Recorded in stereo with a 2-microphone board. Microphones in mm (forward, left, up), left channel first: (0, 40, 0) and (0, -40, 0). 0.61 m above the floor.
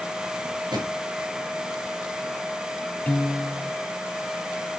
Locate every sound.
0.7 s a drawer: 70° right (ahead or behind), 4 m
3.1 s a piano: 20° left (ahead or behind), 0.5 m